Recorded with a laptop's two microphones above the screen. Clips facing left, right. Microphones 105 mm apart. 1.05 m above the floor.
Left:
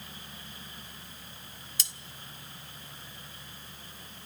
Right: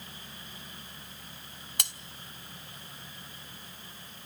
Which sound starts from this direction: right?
Cutlery clinking, at 1.8 s.